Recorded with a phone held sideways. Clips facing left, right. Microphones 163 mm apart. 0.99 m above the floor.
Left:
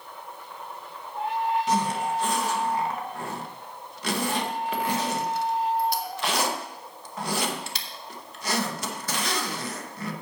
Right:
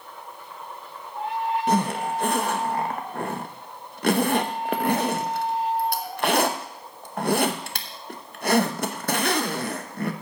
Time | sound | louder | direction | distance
1.7 | a zipper | right 2 dB | 60° right (ahead or behind) | 0.9 m